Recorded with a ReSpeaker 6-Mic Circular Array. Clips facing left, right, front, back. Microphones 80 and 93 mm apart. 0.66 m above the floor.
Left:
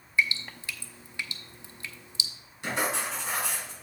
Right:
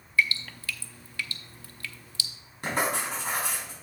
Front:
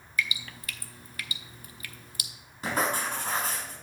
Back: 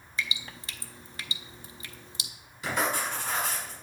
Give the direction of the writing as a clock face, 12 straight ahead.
1 o'clock.